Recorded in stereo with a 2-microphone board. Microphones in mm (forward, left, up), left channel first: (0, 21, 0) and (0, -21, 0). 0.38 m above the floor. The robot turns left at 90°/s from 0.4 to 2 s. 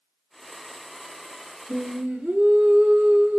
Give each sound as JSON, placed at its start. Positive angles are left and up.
{"t": 1.7, "sound": "singing", "side_deg": -10, "distance_m": 0.7}